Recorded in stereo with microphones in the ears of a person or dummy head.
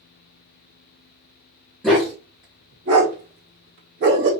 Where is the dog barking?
5° right (ahead or behind), 1.0 m; by 4.3 s 60° right (ahead or behind), 1.6 m.